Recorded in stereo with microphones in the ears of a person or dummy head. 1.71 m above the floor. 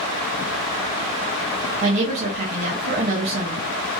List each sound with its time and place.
1.8 s a woman speaking: 35° right (ahead or behind), 0.7 m